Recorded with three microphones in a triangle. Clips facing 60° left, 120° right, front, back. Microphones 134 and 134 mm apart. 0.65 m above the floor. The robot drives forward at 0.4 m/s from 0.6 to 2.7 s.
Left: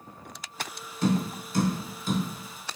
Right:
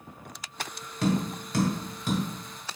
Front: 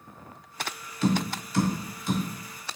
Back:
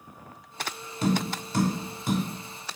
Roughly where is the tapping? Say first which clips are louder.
Left 1 dB, even; behind right.